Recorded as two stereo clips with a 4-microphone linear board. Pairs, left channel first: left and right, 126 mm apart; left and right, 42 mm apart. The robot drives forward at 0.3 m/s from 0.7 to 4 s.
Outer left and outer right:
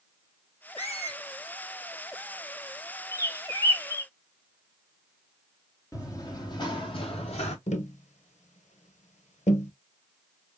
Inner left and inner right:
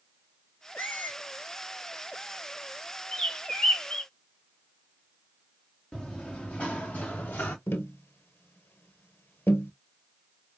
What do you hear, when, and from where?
0.8 s a squeak: 55° left (ahead or behind), 1.1 m
3.1 s a bird: 25° left (ahead or behind), 0.8 m; by 4.1 s 20° left (ahead or behind), 0.8 m
5.9 s running footsteps: 25° left (ahead or behind), 2 m; by 7.6 s 60° left (ahead or behind), 1.4 m
7.7 s tapping: 70° left (ahead or behind), 0.7 m